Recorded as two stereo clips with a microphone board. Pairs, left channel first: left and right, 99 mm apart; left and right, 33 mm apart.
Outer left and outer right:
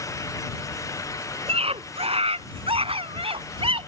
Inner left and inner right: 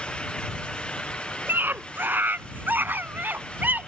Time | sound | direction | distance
1.5 | a scream | 80° right | ?